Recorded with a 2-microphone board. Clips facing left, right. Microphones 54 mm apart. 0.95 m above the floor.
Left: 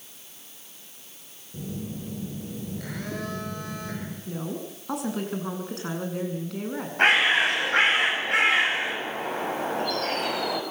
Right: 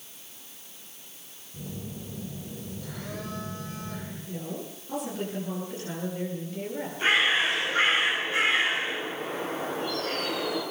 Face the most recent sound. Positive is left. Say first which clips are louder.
# left 4 dB
turn(degrees=70)  # may be behind; listen again after turning